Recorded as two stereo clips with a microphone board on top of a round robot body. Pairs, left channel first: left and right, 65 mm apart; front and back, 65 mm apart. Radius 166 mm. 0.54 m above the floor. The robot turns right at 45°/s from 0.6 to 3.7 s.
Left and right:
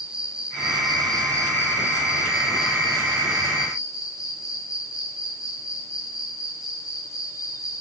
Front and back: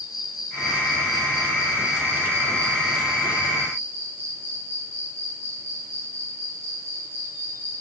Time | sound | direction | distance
0.0 | an insect | 15° right | 4 m